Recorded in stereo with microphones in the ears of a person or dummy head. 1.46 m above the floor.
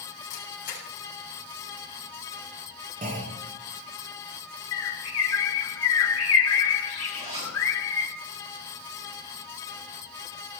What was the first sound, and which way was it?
A camera shutter, 45° left (ahead or behind).